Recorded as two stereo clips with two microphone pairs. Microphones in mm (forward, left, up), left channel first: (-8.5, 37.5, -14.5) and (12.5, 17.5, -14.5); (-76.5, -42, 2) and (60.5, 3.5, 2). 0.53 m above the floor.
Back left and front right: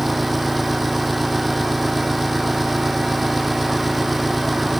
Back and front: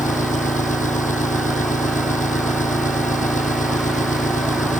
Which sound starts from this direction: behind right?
An engine running, at 0.0 s.